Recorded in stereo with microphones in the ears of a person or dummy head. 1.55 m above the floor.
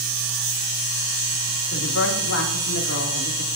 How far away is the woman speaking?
About 3 m.